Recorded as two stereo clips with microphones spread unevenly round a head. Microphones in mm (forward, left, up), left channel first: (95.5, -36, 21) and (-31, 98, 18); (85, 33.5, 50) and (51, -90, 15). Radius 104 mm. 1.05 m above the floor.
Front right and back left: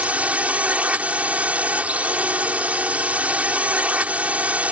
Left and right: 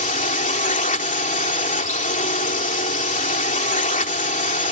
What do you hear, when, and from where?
0.0 s a drone: 50° left